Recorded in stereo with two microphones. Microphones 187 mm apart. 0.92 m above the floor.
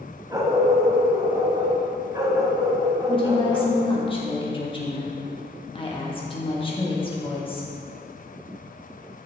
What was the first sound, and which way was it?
A dog barking, 20° right (ahead or behind).